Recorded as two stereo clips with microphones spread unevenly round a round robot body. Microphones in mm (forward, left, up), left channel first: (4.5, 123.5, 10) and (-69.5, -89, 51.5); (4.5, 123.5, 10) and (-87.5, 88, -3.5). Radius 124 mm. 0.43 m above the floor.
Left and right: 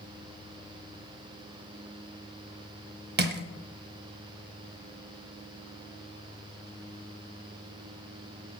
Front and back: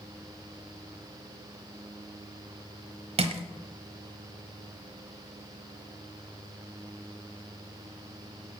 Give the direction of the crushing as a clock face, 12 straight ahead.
5 o'clock.